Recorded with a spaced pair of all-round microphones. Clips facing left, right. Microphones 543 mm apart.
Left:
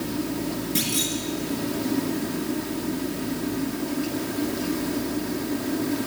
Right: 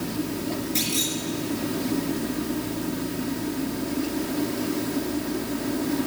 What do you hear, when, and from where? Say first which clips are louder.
0.8 s a clunk: left 1 dB; 35° left (ahead or behind), 3.5 m